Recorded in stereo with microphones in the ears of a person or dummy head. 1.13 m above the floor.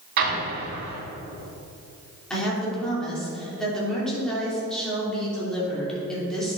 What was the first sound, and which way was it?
An explosion, 70° right (ahead or behind).